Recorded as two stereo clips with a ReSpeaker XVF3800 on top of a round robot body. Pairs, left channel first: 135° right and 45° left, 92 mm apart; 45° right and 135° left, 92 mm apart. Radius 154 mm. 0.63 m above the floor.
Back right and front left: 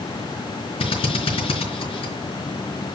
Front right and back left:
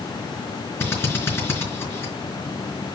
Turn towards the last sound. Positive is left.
turn(degrees=-110)